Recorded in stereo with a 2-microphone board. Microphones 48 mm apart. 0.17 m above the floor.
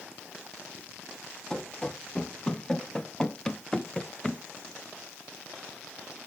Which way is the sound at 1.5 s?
15° left (ahead or behind).